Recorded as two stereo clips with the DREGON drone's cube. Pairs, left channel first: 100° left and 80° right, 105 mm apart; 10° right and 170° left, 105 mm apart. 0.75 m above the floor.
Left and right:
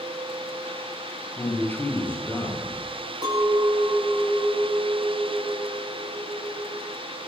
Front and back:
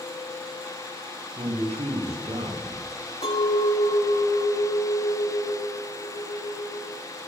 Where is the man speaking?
170° left, 9 m.